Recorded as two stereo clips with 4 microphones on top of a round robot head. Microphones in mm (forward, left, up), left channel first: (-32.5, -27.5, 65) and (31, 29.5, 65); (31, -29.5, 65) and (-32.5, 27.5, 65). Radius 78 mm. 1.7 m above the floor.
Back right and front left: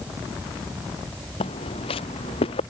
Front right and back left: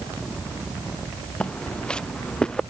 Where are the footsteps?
120° right; by 2.6 s 125° right.